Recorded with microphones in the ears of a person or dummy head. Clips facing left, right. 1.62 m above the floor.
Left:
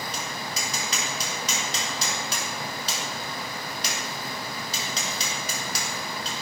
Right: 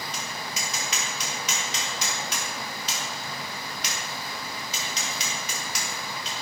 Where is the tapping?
35° left (ahead or behind), 3 m.